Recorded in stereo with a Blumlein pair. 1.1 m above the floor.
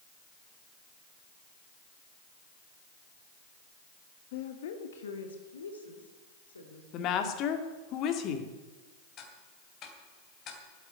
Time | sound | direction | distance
4.3 | a woman speaking | 50° left | 1.0 m
6.9 | a woman speaking | 35° left | 2 m
9.2 | ticking | 30° left | 3 m